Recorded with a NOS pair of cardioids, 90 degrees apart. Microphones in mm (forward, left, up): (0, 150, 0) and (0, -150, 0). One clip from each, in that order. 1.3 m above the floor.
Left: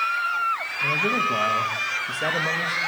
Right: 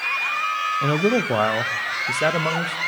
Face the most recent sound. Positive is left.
turn(degrees=-40)